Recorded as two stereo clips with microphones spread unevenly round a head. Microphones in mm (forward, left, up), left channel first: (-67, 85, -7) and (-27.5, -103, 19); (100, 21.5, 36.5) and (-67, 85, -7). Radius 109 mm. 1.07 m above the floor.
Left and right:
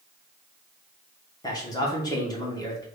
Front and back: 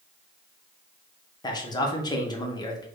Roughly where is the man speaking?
Ahead left.